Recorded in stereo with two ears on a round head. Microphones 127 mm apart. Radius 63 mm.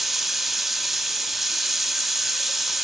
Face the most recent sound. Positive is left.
turn(degrees=0)  # may be behind; listen again after turning